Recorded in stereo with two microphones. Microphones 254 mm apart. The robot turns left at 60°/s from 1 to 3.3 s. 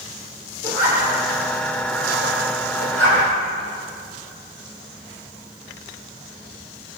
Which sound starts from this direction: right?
A zipper, at 0.6 s.